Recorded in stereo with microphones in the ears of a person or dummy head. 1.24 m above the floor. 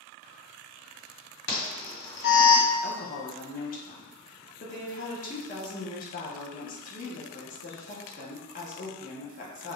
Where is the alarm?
60° left (ahead or behind), 1.5 m.